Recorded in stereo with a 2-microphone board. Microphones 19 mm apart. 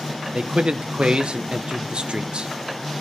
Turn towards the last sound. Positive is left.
turn(degrees=-65)  # may be behind; listen again after turning